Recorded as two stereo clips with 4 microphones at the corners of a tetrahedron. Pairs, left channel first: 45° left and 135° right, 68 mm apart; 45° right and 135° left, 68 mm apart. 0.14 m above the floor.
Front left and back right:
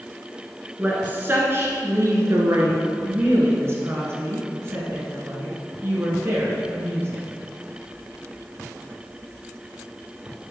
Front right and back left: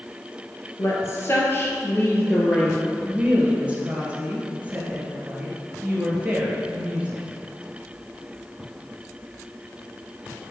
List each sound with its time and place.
0.8 s a woman speaking: 70° right, 1.7 m; by 2.8 s 115° right, 2.0 m
3.0 s a woman speaking: 160° right, 1.9 m